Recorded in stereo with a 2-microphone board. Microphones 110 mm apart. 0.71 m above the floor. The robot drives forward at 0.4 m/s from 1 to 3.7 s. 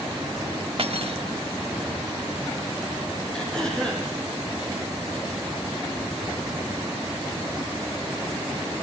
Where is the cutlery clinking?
60° right (ahead or behind), 0.8 m; by 1.2 s 55° right (ahead or behind), 0.8 m.